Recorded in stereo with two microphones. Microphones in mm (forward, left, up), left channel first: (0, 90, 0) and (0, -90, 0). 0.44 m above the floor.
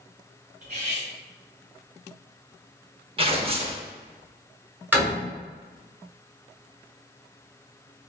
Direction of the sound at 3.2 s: 30° right (ahead or behind).